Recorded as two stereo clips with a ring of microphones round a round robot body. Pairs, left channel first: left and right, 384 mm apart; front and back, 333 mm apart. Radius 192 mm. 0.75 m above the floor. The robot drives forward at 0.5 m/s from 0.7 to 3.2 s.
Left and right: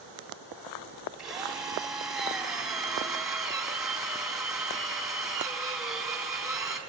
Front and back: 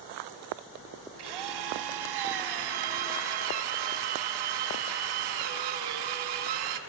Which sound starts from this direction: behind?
A drill, at 1.2 s.